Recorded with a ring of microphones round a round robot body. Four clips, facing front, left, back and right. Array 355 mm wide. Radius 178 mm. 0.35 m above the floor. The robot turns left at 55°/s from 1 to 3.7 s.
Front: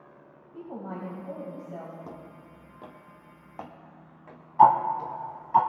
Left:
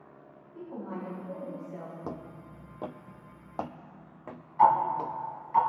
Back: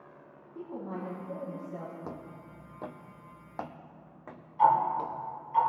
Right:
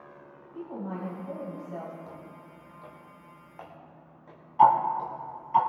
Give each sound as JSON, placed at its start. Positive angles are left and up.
{"t": 0.5, "sound": "a woman speaking", "azimuth_deg": -15, "distance_m": 2.5}
{"t": 2.0, "sound": "footsteps", "azimuth_deg": 105, "distance_m": 0.7}
{"t": 4.6, "sound": "ticking", "azimuth_deg": -20, "distance_m": 1.3}